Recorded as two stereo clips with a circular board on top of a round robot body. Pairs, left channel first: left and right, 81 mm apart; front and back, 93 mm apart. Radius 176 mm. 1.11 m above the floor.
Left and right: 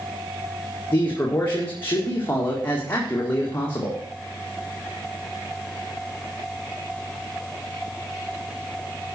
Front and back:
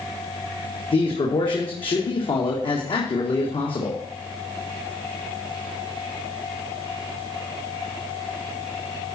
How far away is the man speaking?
About 1.9 m.